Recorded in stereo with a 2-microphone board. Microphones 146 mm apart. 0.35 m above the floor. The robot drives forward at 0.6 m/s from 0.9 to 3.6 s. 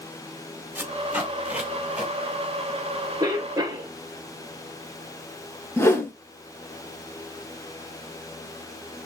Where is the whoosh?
20° left (ahead or behind), 0.7 m.